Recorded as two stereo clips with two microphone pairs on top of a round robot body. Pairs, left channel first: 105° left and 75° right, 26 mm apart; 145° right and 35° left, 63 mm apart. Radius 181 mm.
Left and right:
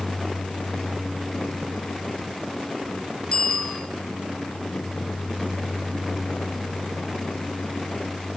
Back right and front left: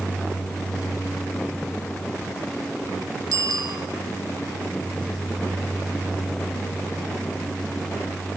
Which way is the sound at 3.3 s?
55° left.